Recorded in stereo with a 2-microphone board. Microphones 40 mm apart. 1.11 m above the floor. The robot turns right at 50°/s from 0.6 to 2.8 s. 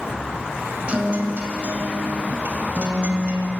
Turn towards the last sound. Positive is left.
turn(degrees=-55)